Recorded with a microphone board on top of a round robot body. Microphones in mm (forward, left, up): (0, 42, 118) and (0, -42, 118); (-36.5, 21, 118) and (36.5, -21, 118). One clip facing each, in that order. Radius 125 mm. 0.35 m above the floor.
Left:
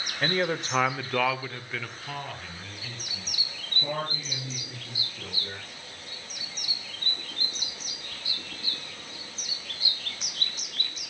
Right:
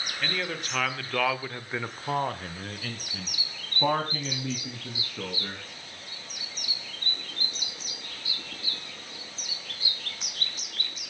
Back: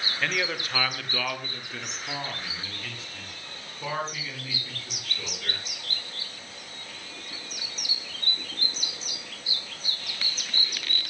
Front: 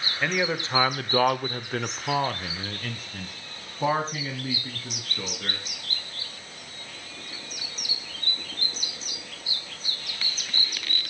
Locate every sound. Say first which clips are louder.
0.2 s a man speaking: left 6 dB, front 4 dB; 45° left, 1.9 m; by 5.6 s 85° right, 5 m